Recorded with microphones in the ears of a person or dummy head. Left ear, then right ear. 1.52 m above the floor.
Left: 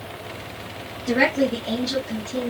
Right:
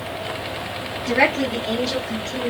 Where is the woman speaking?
10° right (ahead or behind), 0.8 m.